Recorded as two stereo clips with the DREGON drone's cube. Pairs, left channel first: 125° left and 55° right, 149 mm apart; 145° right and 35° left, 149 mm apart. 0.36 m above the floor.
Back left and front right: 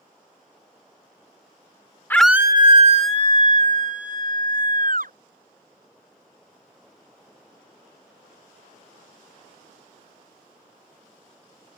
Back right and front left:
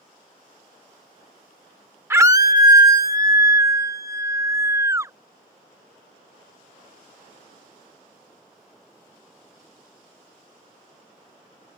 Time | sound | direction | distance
2.1 | a scream | 80° left | ?